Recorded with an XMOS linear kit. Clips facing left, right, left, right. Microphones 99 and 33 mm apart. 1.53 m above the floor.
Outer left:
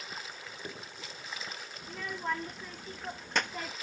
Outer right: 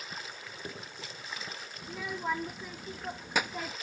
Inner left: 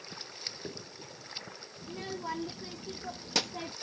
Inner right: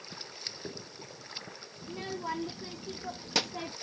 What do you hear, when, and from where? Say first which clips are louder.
1.8 s a child speaking: outer right 1 dB, inner right 1 dB; 5° right (ahead or behind)